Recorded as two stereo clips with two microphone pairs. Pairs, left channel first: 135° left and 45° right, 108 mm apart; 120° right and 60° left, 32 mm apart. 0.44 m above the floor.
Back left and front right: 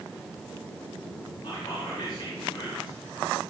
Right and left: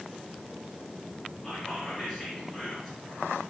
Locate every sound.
1.4 s whispering: 155° left, 2.5 m